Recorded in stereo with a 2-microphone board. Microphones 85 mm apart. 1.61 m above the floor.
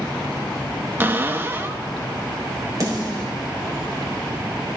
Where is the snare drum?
40° right (ahead or behind), 5 m.